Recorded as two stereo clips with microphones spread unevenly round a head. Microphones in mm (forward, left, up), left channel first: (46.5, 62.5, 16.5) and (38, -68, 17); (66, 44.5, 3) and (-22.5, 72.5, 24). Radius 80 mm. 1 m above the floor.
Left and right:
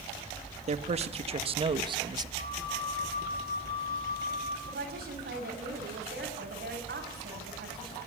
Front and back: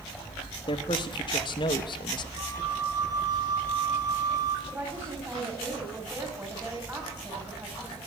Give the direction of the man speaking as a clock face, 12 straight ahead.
2 o'clock.